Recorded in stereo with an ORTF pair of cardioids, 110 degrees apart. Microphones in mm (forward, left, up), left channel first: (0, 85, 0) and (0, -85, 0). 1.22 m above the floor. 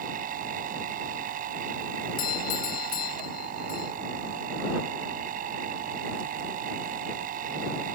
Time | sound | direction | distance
0.0 | a machine running | 60° right | ?
2.2 | a doorbell | 65° left | ?